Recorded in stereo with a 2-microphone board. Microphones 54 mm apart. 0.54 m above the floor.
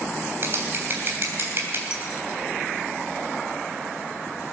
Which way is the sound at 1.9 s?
15° right (ahead or behind).